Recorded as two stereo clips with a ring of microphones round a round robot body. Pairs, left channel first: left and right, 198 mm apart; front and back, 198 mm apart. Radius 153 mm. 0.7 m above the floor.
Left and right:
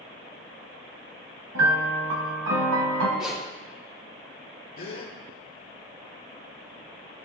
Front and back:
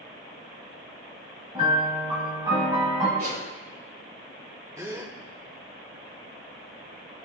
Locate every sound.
1.6 s a piano: 100° right, 1.7 m
3.2 s a zipper: 175° right, 6 m
4.8 s a gasp: 105° left, 2 m